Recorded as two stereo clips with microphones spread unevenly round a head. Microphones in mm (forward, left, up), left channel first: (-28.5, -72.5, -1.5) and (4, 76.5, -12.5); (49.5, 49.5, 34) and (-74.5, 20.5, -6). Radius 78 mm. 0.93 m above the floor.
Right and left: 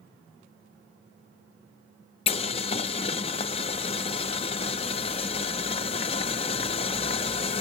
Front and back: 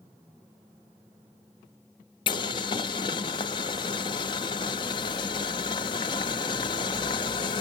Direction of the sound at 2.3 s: 45° right.